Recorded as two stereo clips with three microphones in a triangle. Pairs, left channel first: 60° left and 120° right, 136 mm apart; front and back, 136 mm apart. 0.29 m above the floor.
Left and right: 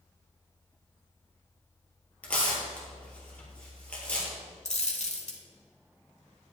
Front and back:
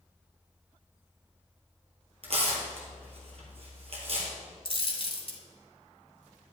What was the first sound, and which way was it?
Tearing paper, 140° left.